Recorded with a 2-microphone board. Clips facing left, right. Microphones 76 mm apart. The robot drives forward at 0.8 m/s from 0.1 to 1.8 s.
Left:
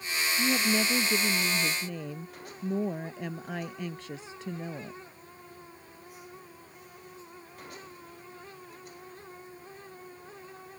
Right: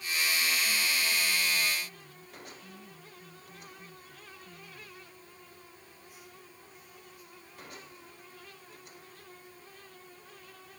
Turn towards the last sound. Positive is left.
turn(degrees=85)